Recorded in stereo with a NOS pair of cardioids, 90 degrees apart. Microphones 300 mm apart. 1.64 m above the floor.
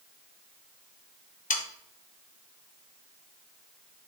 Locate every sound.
1.5 s sawing: 25° left, 0.9 m